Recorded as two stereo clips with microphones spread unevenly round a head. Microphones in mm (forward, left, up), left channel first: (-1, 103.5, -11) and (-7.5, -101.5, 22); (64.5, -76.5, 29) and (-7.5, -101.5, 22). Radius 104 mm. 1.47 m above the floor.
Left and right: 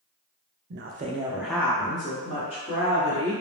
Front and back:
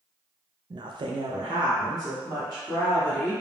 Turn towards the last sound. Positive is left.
turn(degrees=135)